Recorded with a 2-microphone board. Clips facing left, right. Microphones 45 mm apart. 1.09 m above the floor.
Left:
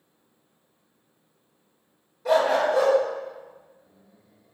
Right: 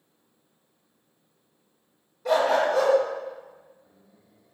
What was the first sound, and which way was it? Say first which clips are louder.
A dog barking: left 1 dB; centre (ahead or behind).